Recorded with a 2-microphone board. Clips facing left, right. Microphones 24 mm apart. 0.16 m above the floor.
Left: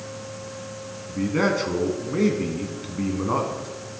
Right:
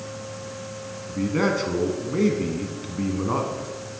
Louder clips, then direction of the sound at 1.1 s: Left 1 dB; 5° left (ahead or behind).